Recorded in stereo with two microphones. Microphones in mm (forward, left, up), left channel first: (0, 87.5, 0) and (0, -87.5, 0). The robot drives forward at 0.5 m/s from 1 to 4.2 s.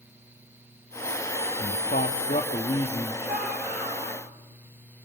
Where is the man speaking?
60° left (ahead or behind), 1.0 m; by 3.1 s 35° left (ahead or behind), 1.5 m.